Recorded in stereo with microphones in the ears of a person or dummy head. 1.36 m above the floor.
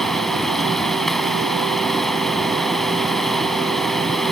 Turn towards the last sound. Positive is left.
turn(degrees=0)  # may be behind; listen again after turning